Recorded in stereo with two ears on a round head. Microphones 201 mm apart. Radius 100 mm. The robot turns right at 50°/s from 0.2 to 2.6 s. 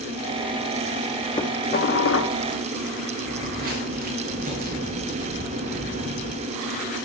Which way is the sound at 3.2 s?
45° right (ahead or behind).